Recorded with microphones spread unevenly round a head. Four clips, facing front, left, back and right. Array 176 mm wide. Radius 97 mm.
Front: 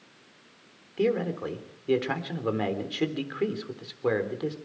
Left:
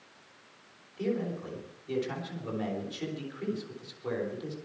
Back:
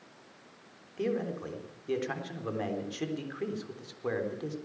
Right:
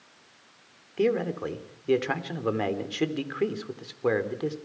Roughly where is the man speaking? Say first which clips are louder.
Right 7 dB, front 6 dB; ahead right.